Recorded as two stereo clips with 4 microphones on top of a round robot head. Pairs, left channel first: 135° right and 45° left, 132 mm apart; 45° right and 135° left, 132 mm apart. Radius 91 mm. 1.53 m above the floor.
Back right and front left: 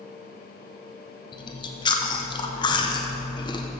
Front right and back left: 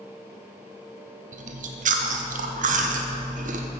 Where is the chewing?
165° left, 1.1 m.